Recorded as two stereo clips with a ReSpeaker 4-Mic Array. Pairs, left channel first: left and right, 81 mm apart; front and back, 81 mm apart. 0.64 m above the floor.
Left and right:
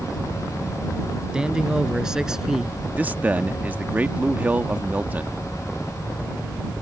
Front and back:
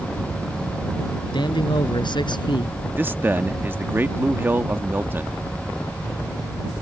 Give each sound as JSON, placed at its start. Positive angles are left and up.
{"t": 1.3, "sound": "a man speaking", "azimuth_deg": -10}
{"t": 3.0, "sound": "a man speaking", "azimuth_deg": -140}